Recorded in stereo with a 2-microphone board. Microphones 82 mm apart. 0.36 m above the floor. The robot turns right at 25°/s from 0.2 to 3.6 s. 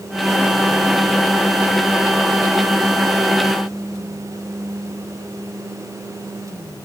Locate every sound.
Only background noise.